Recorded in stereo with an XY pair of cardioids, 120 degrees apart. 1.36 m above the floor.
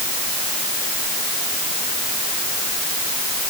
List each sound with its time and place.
Only background noise.